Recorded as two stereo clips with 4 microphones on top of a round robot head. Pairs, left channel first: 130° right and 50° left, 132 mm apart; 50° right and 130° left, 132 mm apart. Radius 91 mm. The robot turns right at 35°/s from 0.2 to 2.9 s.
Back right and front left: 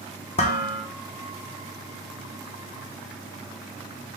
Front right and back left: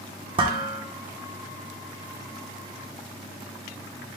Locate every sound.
0.4 s dishes clattering: 175° right, 0.6 m; by 0.8 s 160° right, 0.6 m